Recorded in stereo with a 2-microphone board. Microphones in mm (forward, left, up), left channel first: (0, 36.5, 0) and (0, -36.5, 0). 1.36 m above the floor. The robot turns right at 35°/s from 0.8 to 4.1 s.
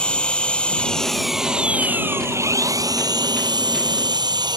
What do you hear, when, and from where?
0.0 s an engine running: 165° left; by 4.6 s 80° right